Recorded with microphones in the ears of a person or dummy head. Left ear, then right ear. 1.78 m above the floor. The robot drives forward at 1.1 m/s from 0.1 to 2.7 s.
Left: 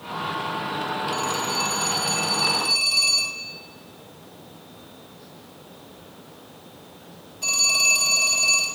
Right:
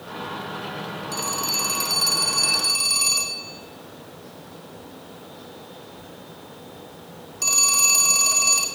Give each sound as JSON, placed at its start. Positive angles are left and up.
{"t": 1.1, "sound": "a phone ringing", "side_deg": -65, "distance_m": 2.0}